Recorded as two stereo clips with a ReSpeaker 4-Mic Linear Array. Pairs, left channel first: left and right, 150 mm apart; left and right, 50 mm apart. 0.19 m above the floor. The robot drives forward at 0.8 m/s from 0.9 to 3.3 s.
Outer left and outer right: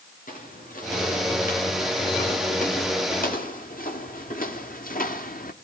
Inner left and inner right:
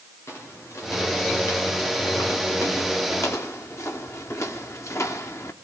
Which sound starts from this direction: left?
Footsteps, at 0.3 s.